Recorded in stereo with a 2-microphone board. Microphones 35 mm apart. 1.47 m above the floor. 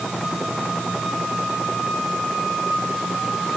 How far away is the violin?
No violin in this recording.